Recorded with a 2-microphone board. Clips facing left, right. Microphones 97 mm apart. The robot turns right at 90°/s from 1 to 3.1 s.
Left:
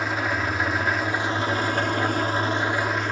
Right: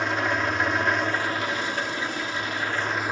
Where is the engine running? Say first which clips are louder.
Right 1 dB; 5° left, 0.8 m; by 3.1 s 165° right, 0.8 m.